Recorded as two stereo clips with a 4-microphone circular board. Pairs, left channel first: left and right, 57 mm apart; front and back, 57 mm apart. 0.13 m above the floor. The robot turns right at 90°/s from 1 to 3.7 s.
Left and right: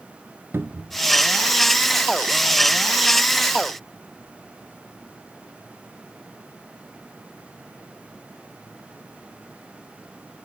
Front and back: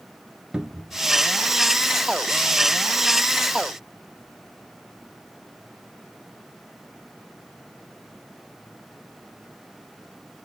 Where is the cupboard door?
110° right, 0.6 m; by 1.0 s 105° right, 0.6 m.